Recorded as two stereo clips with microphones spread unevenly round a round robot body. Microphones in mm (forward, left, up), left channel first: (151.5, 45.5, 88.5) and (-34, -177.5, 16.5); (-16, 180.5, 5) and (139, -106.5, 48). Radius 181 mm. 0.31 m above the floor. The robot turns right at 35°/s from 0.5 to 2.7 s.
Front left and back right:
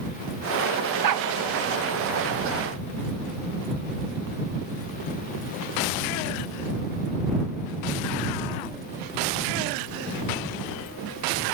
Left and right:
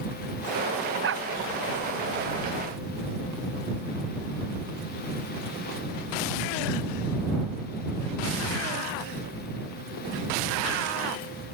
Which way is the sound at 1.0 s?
125° right.